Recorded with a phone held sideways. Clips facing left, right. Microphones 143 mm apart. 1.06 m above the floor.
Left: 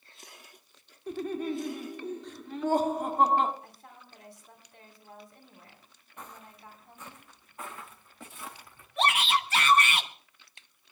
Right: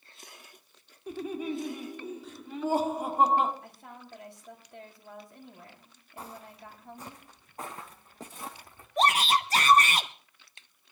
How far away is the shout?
About 1.1 m.